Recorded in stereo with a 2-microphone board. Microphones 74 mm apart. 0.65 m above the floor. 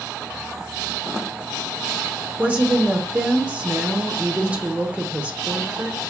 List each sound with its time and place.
2.4 s a woman speaking: 20° right (ahead or behind), 0.7 m